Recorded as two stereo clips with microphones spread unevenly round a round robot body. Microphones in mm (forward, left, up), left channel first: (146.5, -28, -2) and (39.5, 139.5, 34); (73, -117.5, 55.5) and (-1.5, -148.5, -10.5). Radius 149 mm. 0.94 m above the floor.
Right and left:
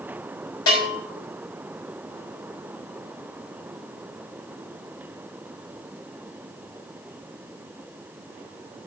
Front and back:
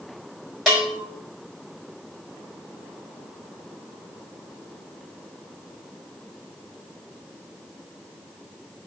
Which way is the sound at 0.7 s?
70° right.